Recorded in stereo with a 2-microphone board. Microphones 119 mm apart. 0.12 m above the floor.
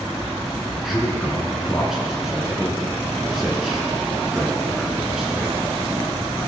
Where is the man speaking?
5° right (ahead or behind), 1.3 m.